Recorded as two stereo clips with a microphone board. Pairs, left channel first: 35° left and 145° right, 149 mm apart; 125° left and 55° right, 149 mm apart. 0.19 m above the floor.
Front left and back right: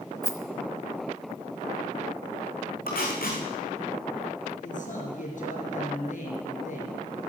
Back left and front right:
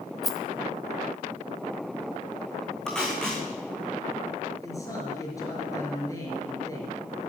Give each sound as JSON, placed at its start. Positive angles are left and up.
{"t": 0.2, "sound": "a rattle", "azimuth_deg": 40, "distance_m": 1.3}
{"t": 2.9, "sound": "tape being pulled", "azimuth_deg": 40, "distance_m": 3.5}
{"t": 4.6, "sound": "a man speaking", "azimuth_deg": 55, "distance_m": 4.5}